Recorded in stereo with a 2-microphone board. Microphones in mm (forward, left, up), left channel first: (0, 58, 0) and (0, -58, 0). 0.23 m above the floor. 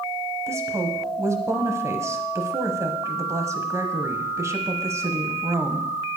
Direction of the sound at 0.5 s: 25° right (ahead or behind).